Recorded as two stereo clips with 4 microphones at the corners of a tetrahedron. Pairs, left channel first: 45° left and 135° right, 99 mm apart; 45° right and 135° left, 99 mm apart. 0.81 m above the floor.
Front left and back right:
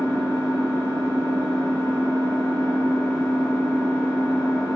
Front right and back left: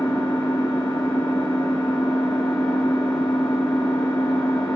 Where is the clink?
No clink in this recording.